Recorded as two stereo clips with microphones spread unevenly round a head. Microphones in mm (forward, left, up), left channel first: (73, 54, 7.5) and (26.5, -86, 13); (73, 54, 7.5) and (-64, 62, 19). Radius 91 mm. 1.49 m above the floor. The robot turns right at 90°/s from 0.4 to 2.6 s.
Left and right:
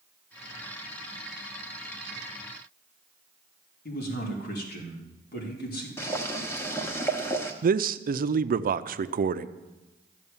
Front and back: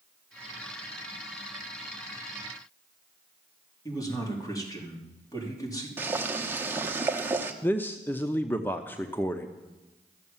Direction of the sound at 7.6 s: 80° right.